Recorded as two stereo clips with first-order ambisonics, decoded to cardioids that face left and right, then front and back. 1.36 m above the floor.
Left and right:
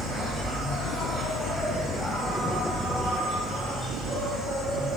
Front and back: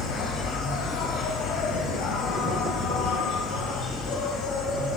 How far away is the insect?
About 1.5 m.